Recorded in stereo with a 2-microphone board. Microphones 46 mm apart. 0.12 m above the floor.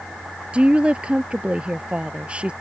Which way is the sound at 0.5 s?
25° right (ahead or behind).